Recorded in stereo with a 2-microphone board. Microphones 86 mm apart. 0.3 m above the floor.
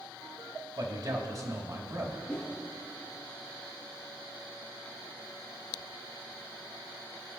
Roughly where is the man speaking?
Right.